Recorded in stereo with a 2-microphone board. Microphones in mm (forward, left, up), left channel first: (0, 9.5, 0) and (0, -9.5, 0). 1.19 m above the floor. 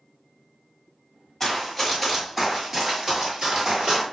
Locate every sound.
1.4 s running footsteps: 10° left (ahead or behind), 1.3 m; by 4.0 s 45° right (ahead or behind), 1.5 m